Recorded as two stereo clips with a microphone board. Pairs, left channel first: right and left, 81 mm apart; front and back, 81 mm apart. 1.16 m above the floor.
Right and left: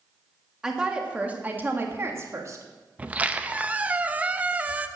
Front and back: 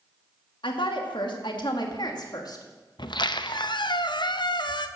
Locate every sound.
0.6 s a woman speaking: 5° left, 1.8 m; by 2.6 s 40° left, 1.9 m
3.0 s a squeak: 20° left, 0.6 m